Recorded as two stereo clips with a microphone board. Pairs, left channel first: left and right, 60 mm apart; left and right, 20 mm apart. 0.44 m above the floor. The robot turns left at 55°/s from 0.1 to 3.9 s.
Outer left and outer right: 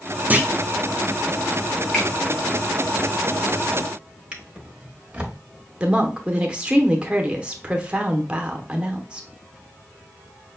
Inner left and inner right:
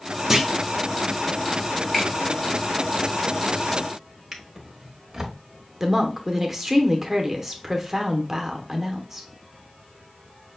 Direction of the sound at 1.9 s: 15° left (ahead or behind).